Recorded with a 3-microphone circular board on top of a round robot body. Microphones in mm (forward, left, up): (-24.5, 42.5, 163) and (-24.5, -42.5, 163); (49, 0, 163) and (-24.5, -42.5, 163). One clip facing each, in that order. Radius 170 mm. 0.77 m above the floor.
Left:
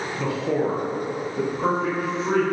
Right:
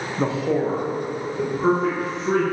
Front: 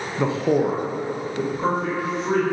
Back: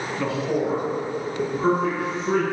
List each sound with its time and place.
0.2 s a man speaking: 45° right, 0.5 m; by 2.4 s 70° left, 1.7 m